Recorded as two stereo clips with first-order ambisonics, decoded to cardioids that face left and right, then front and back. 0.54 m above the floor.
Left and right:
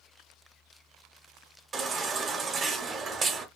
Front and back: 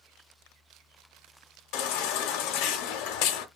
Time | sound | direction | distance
1.7 | a baby crying | 20° right | 0.7 m